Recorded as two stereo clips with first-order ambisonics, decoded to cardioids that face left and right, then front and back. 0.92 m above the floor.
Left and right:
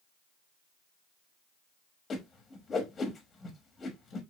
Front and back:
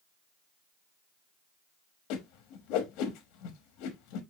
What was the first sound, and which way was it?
A whoosh, 20° left.